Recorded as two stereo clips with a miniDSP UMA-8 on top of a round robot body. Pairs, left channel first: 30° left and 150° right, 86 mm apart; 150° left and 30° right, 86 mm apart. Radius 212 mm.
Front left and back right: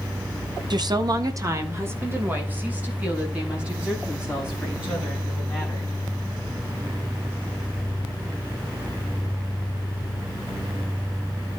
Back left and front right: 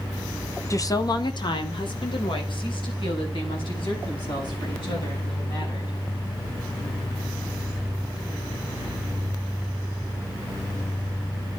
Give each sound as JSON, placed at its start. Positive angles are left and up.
{"t": 0.7, "sound": "a woman speaking", "azimuth_deg": -165, "distance_m": 1.8}